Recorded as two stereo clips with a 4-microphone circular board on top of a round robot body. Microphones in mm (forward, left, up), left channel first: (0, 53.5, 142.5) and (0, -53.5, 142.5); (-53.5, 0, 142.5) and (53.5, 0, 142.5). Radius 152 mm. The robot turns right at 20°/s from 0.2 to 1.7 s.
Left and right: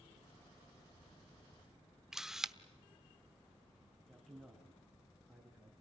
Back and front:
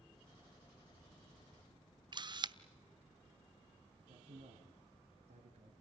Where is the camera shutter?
5° right, 1.1 m.